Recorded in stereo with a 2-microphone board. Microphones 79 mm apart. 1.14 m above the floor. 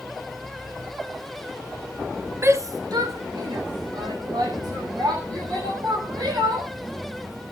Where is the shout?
35° right (ahead or behind), 0.8 m; by 6.7 s 90° right, 4.5 m.